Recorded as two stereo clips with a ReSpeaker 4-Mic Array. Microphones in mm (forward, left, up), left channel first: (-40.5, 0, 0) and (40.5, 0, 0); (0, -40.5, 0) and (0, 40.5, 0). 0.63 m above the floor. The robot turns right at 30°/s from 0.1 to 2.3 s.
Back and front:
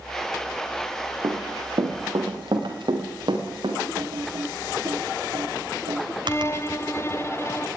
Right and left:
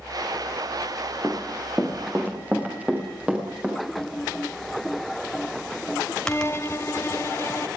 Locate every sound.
1.2 s running footsteps: straight ahead, 5.5 m; by 3.9 s 10° left, 8.5 m
4.0 s typing on a keyboard: 10° right, 4 m
6.2 s a violin: 135° right, 0.8 m